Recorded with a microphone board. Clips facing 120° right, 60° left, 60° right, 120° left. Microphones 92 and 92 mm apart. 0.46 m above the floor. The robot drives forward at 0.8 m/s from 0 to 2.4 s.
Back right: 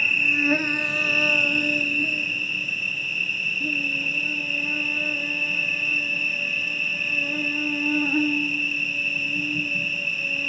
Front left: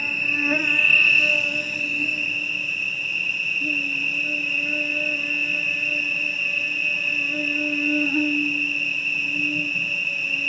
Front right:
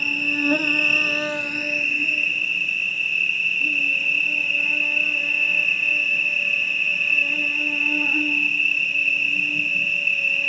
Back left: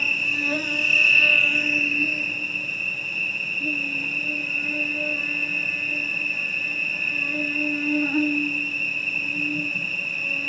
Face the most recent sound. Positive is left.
turn(degrees=-165)